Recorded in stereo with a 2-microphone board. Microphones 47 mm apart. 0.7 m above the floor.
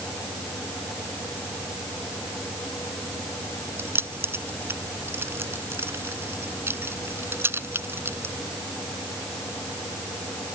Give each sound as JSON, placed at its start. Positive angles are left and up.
{"t": 3.8, "sound": "keys jangling", "side_deg": -55}